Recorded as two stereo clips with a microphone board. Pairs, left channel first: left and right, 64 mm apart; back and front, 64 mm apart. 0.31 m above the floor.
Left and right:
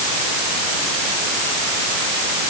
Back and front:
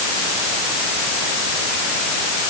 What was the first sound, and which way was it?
Only background noise.